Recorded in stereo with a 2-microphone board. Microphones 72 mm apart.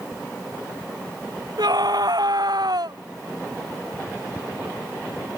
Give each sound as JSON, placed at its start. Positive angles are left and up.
{"t": 1.6, "sound": "a scream", "side_deg": -65}